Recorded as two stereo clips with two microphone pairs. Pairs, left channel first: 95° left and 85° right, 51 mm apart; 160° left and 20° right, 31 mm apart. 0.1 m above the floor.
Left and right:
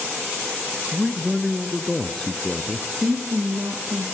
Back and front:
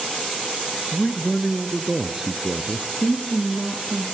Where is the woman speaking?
125° right, 2.5 m.